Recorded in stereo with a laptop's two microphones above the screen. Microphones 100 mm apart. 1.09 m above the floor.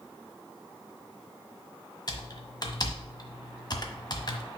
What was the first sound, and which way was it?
Typing on a keyboard, 40° left (ahead or behind).